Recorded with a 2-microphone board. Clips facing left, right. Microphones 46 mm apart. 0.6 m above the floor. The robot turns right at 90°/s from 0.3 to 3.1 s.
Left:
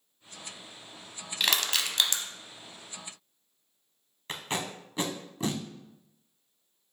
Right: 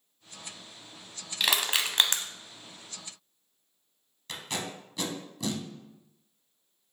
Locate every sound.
1.4 s crushing: centre (ahead or behind), 0.5 m; by 2.2 s 45° right (ahead or behind), 0.5 m
4.3 s tape being pulled: 35° left (ahead or behind), 0.7 m